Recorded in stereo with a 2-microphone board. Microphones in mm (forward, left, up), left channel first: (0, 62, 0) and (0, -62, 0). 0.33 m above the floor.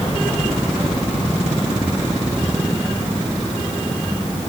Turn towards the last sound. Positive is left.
No sound to turn to.